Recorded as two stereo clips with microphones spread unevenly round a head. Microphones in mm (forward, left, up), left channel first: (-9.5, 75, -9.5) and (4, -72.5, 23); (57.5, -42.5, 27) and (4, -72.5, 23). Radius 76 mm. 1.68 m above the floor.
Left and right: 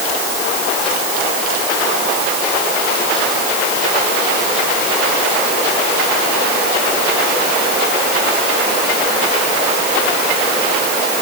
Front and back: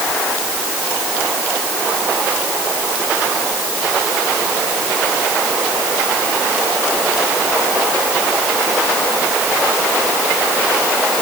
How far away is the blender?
No blender in this recording.